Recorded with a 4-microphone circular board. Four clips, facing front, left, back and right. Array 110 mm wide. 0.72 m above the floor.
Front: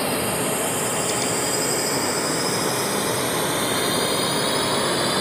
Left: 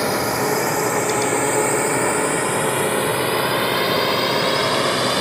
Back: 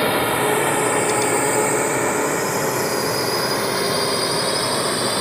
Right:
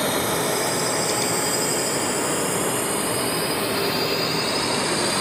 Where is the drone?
155° left; by 5.2 s 95° left.